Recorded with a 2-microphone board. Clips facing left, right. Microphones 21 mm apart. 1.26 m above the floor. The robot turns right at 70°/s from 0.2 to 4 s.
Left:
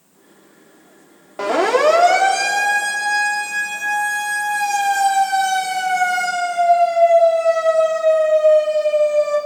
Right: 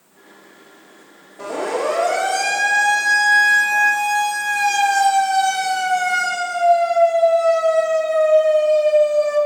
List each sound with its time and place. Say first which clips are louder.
1.4 s a siren: left 7 dB; 80° left, 3.5 m; by 9.4 s 5° left (ahead or behind), 10 m